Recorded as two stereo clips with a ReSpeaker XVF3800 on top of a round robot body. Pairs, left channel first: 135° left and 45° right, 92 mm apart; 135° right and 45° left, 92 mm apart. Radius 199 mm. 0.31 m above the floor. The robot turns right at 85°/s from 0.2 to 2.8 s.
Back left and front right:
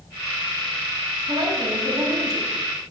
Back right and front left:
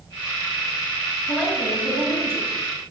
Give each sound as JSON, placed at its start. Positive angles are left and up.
{"t": 1.3, "sound": "a woman speaking", "azimuth_deg": -50, "distance_m": 3.5}